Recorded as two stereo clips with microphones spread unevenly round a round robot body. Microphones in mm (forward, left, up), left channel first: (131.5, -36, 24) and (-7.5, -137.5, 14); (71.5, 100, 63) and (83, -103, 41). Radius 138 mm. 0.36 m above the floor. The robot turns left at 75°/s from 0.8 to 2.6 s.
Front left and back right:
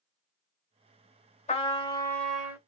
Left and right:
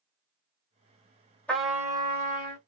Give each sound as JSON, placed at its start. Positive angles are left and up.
{"t": 1.5, "sound": "a trumpet", "azimuth_deg": 5, "distance_m": 1.8}